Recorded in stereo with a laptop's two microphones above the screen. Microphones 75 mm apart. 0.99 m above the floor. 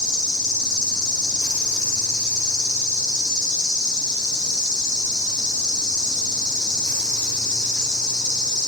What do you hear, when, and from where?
0.0 s an insect: 55° left (ahead or behind), 0.9 m